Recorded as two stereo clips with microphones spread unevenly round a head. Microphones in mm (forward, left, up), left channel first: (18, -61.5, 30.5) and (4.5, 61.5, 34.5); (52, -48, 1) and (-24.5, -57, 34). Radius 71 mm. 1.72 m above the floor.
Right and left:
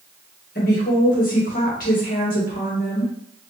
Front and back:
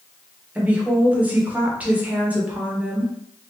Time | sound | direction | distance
0.6 | a woman speaking | 105° right | 1.2 m